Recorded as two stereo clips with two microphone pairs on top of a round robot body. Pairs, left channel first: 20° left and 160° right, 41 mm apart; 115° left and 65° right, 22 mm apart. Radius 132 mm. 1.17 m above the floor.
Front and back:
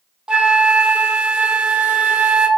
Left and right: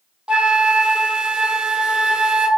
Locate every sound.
0.3 s a flute: 100° right, 0.6 m